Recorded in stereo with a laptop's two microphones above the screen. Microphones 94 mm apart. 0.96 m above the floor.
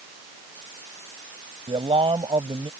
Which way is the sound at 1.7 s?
75° right (ahead or behind).